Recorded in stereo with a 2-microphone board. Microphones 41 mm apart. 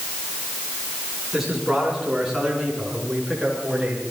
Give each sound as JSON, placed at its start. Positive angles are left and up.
{"t": 1.3, "sound": "a man speaking", "side_deg": -10, "distance_m": 8.0}